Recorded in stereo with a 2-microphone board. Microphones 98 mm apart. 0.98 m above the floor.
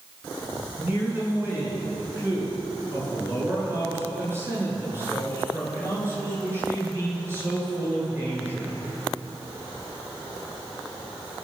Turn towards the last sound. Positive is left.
turn(degrees=-25)  # may be behind; listen again after turning